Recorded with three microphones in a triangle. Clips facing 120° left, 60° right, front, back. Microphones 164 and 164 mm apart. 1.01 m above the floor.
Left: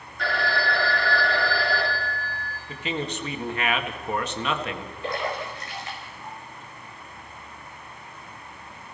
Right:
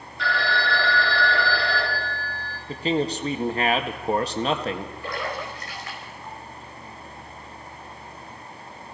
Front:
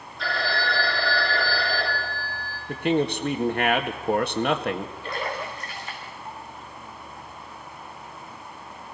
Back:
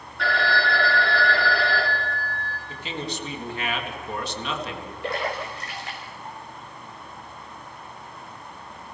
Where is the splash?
175° right, 6 m.